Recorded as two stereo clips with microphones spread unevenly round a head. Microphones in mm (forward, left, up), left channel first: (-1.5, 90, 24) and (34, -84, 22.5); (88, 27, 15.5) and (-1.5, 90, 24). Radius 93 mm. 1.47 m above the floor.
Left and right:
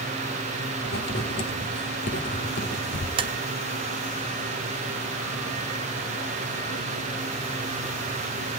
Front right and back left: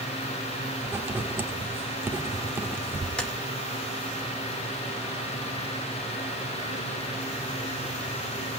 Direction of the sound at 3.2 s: 120° right.